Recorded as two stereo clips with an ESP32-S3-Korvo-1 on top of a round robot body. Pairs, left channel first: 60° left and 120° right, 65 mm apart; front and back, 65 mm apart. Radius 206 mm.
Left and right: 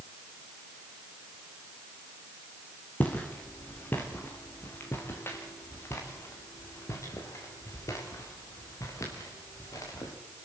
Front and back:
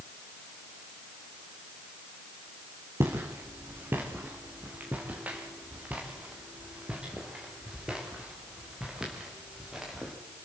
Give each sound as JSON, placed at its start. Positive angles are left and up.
{"t": 3.0, "sound": "footsteps", "azimuth_deg": 130, "distance_m": 3.0}